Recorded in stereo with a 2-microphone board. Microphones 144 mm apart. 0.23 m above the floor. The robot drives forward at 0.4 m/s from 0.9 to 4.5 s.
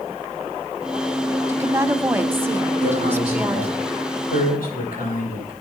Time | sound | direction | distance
1.5 | a woman speaking | 20° right (ahead or behind) | 1.0 m
2.8 | a man speaking | 75° left (ahead or behind) | 9 m